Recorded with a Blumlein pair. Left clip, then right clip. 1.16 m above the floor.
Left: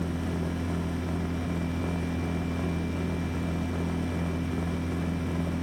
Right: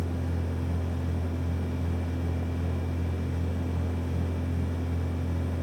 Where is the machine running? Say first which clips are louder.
Left 3 dB; 55° left, 1.7 m.